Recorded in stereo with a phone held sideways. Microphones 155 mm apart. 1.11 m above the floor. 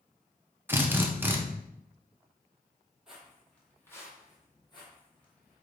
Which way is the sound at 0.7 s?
15° right (ahead or behind).